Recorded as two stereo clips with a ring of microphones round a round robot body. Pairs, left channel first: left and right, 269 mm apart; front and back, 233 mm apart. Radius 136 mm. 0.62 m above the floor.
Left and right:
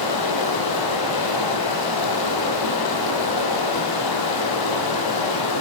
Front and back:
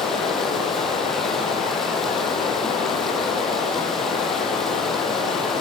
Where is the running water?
90° left, 4.5 m.